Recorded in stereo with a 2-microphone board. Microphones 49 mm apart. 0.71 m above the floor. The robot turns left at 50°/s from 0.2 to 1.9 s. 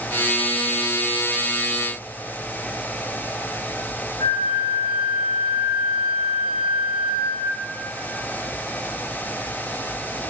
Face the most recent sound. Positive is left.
turn(degrees=75)  # may be behind; listen again after turning